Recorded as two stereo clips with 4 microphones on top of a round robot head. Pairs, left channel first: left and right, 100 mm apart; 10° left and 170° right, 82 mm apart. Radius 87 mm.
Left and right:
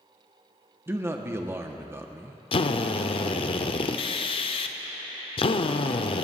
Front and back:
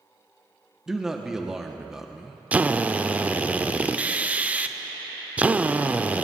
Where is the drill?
120° left, 0.7 m.